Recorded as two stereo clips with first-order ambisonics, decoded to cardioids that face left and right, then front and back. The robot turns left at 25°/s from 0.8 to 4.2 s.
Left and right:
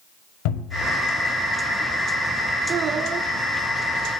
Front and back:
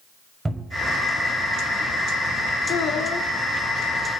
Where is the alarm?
I don't hear an alarm.